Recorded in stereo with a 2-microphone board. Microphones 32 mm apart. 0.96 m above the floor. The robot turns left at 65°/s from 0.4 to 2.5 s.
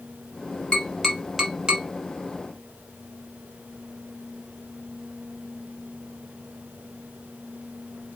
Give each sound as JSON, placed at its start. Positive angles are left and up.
{"t": 0.7, "sound": "tapping", "side_deg": 40, "distance_m": 1.5}